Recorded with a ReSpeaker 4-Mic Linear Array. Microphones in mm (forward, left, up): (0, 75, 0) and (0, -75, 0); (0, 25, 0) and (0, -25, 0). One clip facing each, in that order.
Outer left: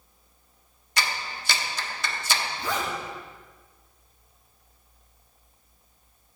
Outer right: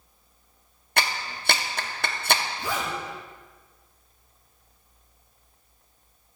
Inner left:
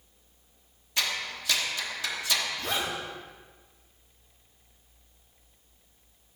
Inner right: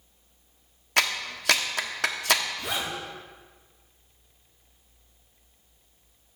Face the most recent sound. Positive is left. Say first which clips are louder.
# outer left 1 dB, even
turn(degrees=-10)  # may be behind; listen again after turning